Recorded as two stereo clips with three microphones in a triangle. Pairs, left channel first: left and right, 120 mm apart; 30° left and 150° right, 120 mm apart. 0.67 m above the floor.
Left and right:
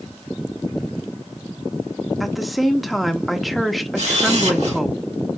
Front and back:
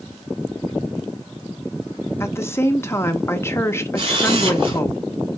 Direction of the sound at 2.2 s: Straight ahead.